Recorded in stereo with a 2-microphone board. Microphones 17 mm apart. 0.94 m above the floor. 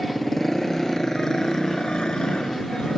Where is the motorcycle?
20° left (ahead or behind); by 3.0 s 85° left.